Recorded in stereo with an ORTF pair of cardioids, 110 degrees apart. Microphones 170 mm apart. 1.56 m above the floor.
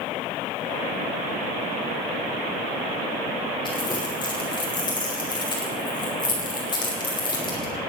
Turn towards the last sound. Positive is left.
turn(degrees=25)